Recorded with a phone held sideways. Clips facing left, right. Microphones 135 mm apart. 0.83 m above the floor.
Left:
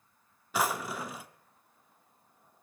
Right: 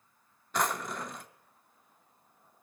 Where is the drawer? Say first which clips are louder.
Left 1 dB; 5° left (ahead or behind), 0.5 m.